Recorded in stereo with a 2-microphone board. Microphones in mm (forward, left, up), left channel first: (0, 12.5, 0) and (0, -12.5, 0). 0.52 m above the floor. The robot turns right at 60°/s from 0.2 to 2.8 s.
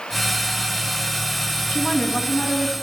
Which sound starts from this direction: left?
A woman speaking, at 1.7 s.